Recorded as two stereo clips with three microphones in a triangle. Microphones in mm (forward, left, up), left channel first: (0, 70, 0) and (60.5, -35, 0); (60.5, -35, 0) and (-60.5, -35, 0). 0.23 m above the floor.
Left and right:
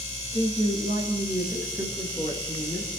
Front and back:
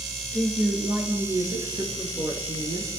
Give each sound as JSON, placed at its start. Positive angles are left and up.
{"t": 0.3, "sound": "a woman speaking", "azimuth_deg": -110, "distance_m": 5.0}